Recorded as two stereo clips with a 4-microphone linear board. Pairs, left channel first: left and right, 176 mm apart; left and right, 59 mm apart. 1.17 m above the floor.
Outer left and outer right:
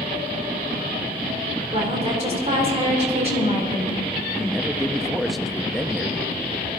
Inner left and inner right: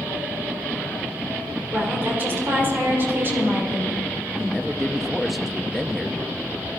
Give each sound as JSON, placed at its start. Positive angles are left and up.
{"t": 1.7, "sound": "a woman speaking", "side_deg": -40, "distance_m": 3.5}
{"t": 4.4, "sound": "a man speaking", "side_deg": 0, "distance_m": 0.7}